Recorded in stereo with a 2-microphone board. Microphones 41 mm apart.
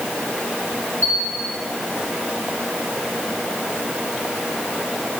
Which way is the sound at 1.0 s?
85° right.